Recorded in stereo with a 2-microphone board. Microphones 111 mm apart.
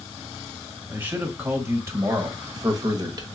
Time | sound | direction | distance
0.9 | a man speaking | 15° right (ahead or behind) | 1.5 m